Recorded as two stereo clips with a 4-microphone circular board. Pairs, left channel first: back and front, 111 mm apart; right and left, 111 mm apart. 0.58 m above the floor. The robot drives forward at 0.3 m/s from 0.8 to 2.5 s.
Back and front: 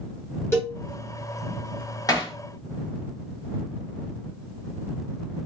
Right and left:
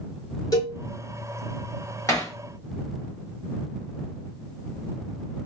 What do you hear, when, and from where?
0.5 s a cowbell: 125° right, 1.3 m
2.1 s hammering: 140° right, 1.0 m